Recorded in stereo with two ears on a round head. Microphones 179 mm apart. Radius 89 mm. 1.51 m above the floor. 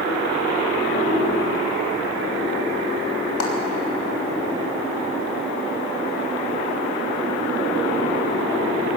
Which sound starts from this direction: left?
A clap, at 3.4 s.